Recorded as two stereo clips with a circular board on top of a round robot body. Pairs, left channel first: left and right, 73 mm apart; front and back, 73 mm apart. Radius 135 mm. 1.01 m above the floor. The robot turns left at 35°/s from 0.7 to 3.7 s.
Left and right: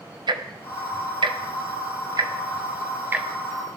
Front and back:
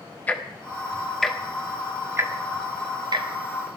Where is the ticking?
70° right, 1.5 m; by 3.8 s 175° right, 1.5 m.